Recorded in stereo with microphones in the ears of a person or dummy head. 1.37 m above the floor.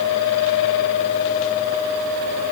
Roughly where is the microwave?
No microwave in this recording.